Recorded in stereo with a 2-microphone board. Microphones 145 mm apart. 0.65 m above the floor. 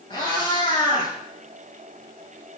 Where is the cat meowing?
30° left (ahead or behind), 2 m.